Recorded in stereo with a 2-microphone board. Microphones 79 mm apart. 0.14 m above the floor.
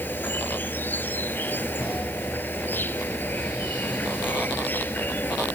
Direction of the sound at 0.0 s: 25° left (ahead or behind).